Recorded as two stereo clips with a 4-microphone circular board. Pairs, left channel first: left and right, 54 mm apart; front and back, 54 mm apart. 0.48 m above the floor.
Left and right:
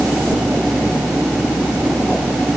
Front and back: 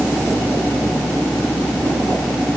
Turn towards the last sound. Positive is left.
No sound to turn to.